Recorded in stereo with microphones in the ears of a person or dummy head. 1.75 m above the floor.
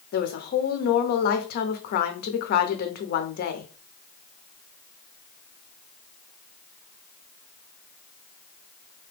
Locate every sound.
0.1 s a woman speaking: 55° left (ahead or behind), 0.7 m